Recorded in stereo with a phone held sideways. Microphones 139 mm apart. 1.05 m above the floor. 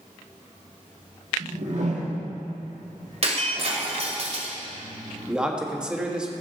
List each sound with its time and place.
1.4 s a whoosh: 55° right (ahead or behind), 1.6 m
3.2 s breaking glass: 50° right (ahead or behind), 2.0 m
5.3 s a man speaking: 5° right (ahead or behind), 1.3 m